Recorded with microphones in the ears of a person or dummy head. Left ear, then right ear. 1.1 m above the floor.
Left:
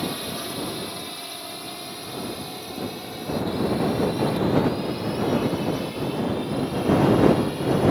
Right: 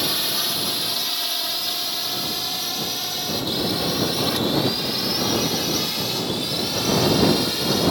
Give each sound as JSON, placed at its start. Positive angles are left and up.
{"t": 0.0, "sound": "a drone", "side_deg": -35}